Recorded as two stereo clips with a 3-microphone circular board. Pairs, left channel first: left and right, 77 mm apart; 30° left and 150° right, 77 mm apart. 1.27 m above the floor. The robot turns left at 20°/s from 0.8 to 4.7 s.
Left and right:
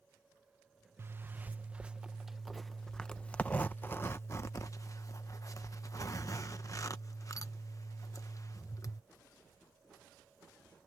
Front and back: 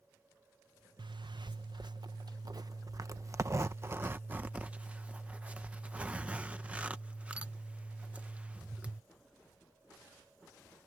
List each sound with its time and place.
1.0 s a zipper: 150° right; by 9.0 s 135° left